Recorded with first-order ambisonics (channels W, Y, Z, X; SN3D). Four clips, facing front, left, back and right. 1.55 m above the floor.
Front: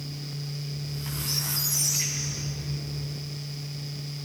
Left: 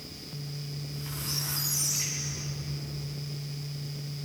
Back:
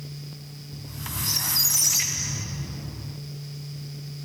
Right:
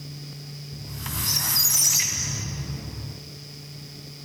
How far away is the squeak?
About 2.5 m.